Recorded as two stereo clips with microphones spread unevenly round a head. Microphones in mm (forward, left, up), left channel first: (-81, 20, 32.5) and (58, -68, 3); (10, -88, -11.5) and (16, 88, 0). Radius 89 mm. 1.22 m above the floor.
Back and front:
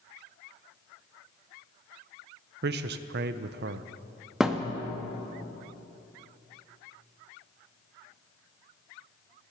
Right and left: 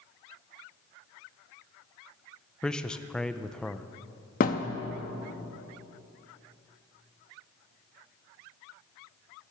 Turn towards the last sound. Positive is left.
turn(degrees=-130)